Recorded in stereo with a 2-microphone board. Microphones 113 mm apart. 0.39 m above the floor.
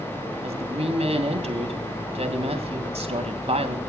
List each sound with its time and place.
0.4 s a woman speaking: 65° right (ahead or behind), 3 m